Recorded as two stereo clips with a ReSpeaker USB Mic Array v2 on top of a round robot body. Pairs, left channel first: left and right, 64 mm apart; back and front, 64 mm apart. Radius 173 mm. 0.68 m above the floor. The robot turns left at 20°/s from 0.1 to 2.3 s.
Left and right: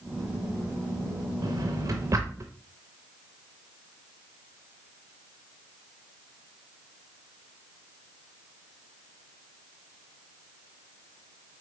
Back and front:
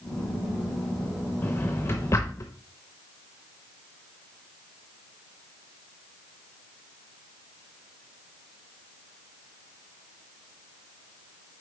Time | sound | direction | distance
1.4 | a drawer | 120° right | 0.5 m